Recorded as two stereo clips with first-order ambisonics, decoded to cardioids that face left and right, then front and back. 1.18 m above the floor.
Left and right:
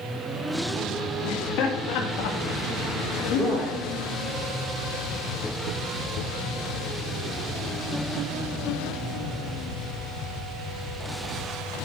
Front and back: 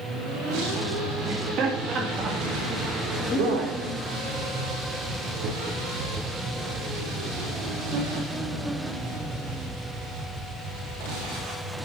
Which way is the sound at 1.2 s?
135° left.